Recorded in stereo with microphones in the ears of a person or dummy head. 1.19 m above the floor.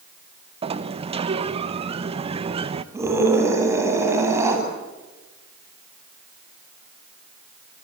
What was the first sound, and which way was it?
A sliding door, 35° right (ahead or behind).